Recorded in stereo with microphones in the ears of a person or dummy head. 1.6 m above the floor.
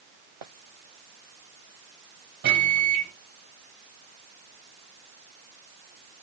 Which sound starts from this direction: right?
A microwave, at 2.4 s.